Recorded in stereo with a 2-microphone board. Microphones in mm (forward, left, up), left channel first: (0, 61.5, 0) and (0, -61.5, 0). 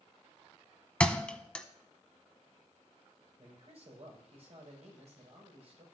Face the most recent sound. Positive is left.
turn(degrees=-55)  # may be behind; listen again after turning